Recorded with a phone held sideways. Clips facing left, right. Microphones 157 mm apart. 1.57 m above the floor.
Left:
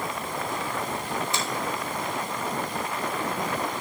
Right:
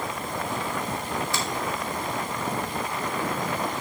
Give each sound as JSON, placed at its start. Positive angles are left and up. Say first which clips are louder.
{"t": 1.3, "sound": "a finger snap", "louder": "even", "side_deg": 20, "distance_m": 3.0}